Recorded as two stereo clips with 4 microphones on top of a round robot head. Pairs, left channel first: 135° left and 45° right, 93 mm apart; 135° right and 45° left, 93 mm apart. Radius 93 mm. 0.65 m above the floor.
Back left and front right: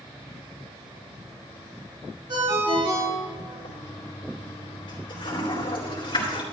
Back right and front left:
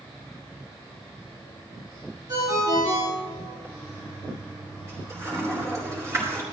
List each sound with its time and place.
2.3 s a ringtone: 5° right, 6 m
3.6 s a toilet flushing: 100° left, 3.5 m